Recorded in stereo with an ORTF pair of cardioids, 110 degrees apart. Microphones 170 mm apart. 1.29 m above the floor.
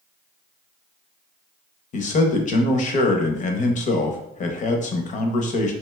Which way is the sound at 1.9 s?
50° left.